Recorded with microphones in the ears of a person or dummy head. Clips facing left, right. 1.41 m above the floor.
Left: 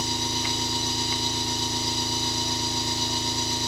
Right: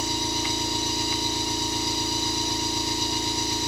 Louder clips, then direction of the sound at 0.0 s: Right 2 dB; 15° right (ahead or behind).